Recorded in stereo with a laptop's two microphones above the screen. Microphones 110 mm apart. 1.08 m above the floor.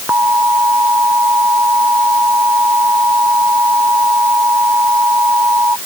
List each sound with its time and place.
0.1 s an alarm: 20° right (ahead or behind)